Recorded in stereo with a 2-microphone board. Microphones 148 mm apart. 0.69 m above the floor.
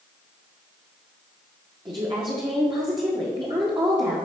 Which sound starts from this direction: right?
A woman speaking, at 1.9 s.